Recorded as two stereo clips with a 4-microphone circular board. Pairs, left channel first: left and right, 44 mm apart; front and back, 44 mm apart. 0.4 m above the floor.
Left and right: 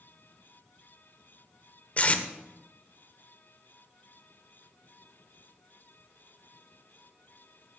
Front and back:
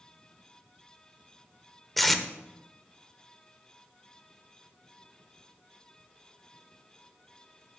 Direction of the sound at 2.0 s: 85° left.